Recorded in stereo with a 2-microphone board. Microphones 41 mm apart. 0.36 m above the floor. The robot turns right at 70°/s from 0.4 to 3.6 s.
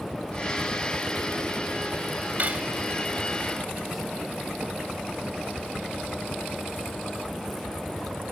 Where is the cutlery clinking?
40° right (ahead or behind), 1.1 m; by 2.7 s 20° right (ahead or behind), 1.1 m.